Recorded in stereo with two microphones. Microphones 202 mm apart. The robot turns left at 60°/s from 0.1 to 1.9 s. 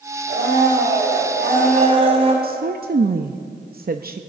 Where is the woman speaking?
50° right (ahead or behind), 0.5 m.